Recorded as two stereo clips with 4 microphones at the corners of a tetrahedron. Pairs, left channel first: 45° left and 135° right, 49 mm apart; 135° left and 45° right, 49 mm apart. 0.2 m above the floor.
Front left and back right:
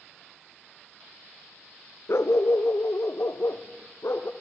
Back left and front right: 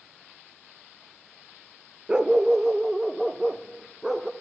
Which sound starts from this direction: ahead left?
A dog barking, at 2.1 s.